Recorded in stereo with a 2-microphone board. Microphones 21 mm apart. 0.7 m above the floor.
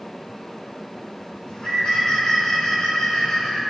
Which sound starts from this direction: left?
A bird, at 1.5 s.